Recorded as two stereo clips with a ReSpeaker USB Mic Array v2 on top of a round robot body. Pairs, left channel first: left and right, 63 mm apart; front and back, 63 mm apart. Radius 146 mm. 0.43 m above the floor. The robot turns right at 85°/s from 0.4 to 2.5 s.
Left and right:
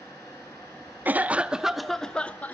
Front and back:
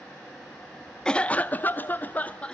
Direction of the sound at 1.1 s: 65° right.